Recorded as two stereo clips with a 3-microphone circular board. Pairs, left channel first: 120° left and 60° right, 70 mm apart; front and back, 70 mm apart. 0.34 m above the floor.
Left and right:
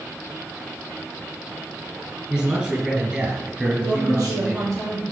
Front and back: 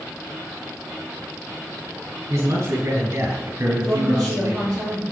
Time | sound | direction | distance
2.3 | a man speaking | 130° right | 5.5 m
3.8 | a woman speaking | 95° right | 5 m